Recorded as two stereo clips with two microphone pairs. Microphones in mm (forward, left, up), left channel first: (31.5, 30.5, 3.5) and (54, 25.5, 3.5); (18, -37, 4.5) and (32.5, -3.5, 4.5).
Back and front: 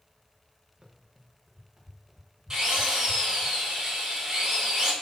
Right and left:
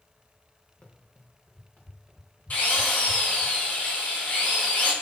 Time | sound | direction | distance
0.8 | running footsteps | 70° right | 3.5 m
2.5 | a drill | 70° right | 4.5 m